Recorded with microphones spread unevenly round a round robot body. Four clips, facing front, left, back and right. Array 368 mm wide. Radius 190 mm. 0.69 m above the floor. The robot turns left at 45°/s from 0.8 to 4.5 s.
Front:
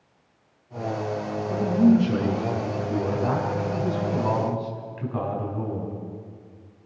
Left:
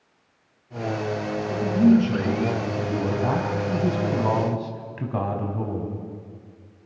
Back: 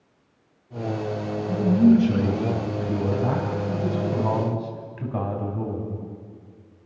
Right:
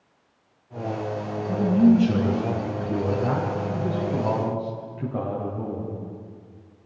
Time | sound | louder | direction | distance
1.5 | a man speaking | even, back 2 dB | 125° right | 5.5 m